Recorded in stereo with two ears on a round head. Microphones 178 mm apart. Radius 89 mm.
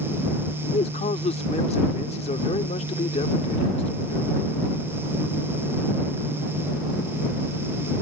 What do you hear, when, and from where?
0.7 s a man speaking: 30° left (ahead or behind)